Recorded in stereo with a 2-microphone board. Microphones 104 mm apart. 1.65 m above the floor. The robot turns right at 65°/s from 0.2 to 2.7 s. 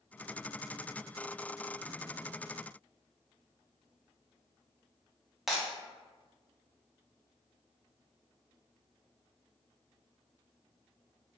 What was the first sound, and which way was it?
Breaking glass, centre (ahead or behind).